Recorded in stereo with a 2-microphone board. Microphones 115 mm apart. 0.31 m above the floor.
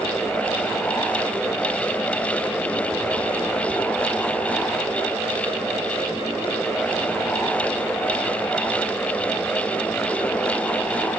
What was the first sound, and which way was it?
Only background noise.